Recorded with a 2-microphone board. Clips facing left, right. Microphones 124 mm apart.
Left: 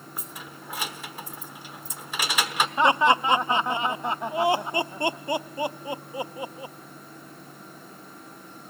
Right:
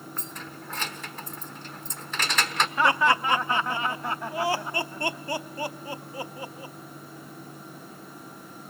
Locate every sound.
0.2 s keys jangling: 10° left (ahead or behind), 1.0 m
2.8 s laughter: 20° left (ahead or behind), 0.6 m